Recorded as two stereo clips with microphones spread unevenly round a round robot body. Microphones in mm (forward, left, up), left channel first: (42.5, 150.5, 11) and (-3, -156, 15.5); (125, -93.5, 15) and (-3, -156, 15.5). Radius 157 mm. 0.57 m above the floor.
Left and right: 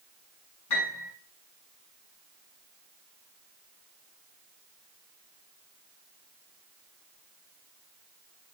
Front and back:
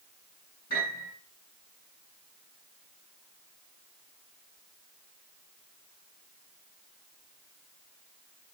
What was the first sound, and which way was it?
A piano, 80° left.